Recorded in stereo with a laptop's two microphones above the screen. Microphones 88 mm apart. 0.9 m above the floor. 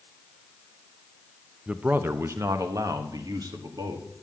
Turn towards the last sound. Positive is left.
turn(degrees=-55)  # may be behind; listen again after turning